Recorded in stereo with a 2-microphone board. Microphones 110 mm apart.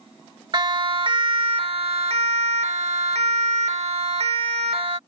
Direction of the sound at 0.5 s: 45° right (ahead or behind).